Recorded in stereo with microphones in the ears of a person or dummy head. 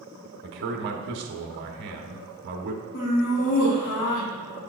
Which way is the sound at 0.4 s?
55° right (ahead or behind).